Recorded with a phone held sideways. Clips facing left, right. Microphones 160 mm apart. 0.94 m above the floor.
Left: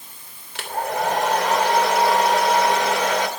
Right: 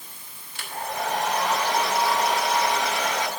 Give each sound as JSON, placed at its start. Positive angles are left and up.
{"t": 0.6, "sound": "a hair dryer", "side_deg": 85, "distance_m": 3.0}